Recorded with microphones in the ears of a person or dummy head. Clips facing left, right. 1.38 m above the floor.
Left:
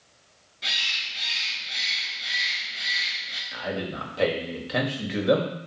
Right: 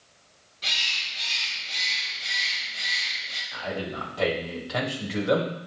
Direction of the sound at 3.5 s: 30° left (ahead or behind).